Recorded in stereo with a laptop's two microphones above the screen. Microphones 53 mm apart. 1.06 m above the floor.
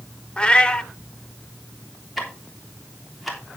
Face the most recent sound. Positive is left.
turn(degrees=0)  # may be behind; listen again after turning